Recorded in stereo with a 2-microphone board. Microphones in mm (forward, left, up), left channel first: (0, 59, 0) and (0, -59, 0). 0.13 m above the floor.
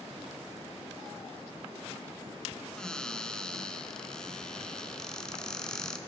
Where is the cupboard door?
5° left (ahead or behind), 0.5 m.